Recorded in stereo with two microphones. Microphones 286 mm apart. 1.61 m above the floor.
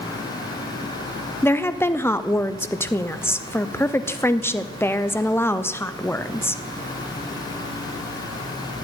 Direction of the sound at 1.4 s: 10° left (ahead or behind).